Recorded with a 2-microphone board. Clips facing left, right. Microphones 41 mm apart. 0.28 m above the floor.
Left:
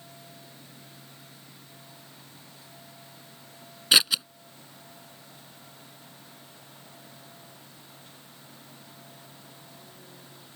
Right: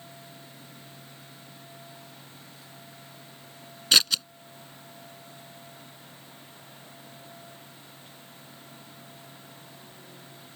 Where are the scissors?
10° left (ahead or behind).